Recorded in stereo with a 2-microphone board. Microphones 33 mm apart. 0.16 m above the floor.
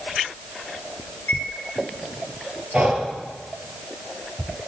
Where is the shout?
No shout in this recording.